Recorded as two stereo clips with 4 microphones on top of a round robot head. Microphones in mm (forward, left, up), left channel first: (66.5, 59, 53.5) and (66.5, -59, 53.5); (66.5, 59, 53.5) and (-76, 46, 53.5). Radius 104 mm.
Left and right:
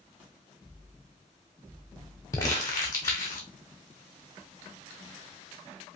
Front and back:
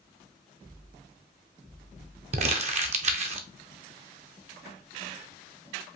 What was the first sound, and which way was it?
Crumpling, 160° left.